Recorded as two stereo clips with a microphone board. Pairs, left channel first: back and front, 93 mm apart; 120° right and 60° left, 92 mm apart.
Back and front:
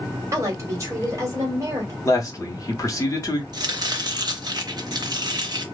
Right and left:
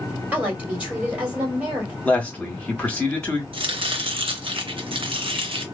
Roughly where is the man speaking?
Behind.